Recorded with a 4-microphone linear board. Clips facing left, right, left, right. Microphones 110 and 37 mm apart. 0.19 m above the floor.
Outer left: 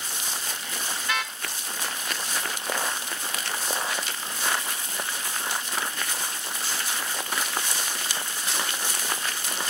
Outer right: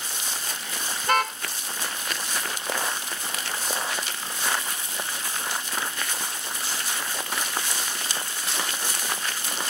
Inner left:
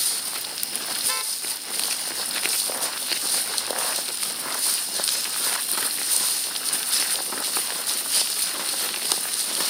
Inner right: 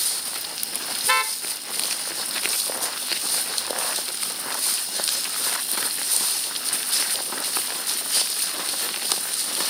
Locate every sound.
1.0 s a car horn: 45° right (ahead or behind)